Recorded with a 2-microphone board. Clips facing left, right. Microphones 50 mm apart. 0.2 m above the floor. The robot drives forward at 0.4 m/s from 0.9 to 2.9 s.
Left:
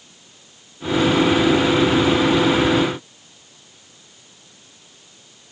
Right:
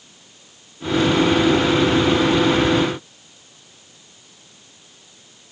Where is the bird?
I don't hear a bird.